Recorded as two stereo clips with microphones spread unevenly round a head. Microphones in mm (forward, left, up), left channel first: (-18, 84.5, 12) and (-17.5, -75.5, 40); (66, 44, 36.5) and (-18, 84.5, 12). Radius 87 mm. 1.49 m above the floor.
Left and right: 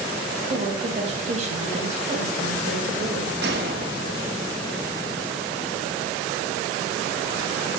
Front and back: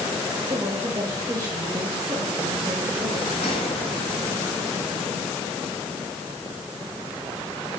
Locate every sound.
0.5 s a woman speaking: 140° right, 3 m
3.4 s a gunshot: 60° right, 1.5 m